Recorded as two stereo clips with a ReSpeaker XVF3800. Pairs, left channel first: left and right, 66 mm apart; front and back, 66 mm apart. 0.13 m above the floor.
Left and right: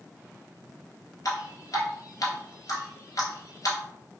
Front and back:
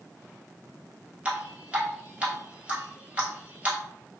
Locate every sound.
1.2 s dripping: 110° left, 1.4 m